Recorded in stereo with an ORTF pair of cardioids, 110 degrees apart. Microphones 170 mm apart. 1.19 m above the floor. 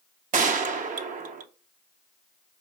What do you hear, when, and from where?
0.3 s a gunshot: 50° right, 0.8 m